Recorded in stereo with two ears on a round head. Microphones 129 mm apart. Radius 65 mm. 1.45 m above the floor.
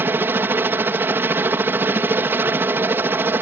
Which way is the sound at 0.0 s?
15° right (ahead or behind).